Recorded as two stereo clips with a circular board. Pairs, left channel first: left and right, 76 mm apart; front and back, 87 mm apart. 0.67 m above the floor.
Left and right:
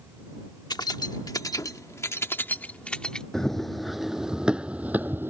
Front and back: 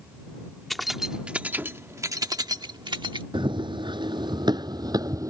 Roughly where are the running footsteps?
Behind.